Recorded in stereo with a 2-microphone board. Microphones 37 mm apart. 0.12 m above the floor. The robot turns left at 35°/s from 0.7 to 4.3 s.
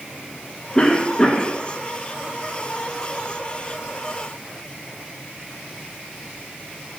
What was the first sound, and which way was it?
A cough, 20° left (ahead or behind).